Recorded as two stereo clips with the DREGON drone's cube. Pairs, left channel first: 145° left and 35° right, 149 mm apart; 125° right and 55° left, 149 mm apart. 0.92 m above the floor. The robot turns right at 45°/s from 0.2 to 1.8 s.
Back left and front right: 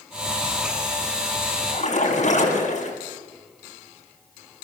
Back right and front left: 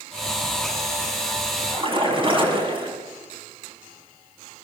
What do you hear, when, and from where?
1.7 s a splash: 105° left, 8 m; by 3.0 s 110° left, 8 m